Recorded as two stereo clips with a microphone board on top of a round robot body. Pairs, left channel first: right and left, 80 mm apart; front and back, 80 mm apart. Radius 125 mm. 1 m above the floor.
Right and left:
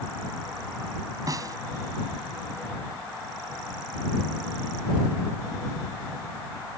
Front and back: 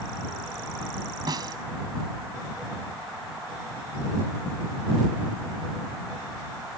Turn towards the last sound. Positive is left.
turn(degrees=140)